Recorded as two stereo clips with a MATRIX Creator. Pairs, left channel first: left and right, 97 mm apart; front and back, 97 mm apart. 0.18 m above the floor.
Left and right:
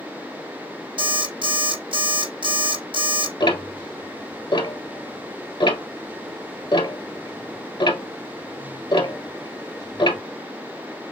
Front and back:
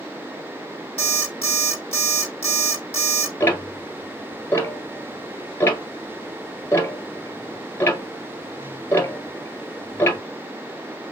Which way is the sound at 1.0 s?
75° right.